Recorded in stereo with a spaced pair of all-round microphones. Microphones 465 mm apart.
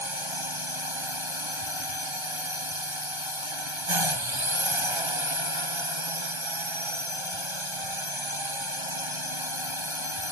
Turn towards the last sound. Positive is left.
turn(degrees=-80)